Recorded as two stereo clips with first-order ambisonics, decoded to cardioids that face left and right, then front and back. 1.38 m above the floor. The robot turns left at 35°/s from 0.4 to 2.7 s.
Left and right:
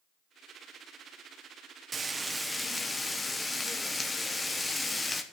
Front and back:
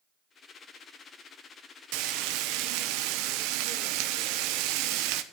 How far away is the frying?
About 1.0 m.